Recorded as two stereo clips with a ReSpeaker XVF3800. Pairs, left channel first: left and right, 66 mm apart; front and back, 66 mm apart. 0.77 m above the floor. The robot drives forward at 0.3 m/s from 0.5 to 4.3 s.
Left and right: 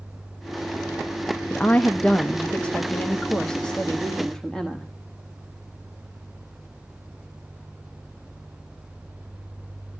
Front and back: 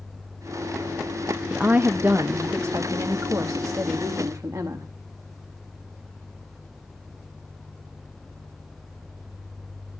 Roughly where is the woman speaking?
Behind left.